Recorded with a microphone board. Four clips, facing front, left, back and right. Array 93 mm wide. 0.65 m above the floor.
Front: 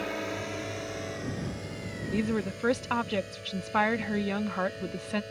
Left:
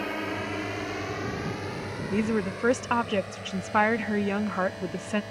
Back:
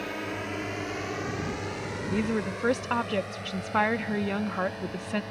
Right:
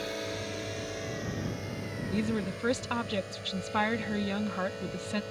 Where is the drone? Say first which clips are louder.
Left 4 dB, even; 90° left; by 5.3 s 160° left.